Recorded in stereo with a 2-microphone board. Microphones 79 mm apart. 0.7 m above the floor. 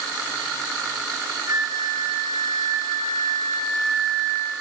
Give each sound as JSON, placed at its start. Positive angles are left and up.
{"t": 1.5, "sound": "a flute", "side_deg": -50, "distance_m": 5.5}